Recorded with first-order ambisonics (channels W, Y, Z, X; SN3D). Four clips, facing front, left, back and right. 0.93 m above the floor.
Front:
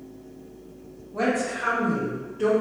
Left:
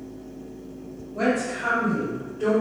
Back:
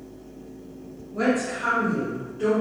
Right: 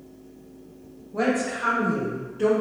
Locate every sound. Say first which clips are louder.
1.1 s a woman speaking: even, back 1 dB; 65° right, 1.9 m; by 2.6 s 80° right, 1.2 m